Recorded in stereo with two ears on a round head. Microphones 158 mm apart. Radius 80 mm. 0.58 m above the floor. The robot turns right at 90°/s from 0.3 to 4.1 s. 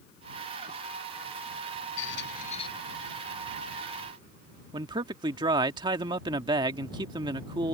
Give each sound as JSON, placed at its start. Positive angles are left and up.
{"t": 2.0, "sound": "a squeak", "azimuth_deg": 90}
{"t": 4.7, "sound": "a man speaking", "side_deg": -25}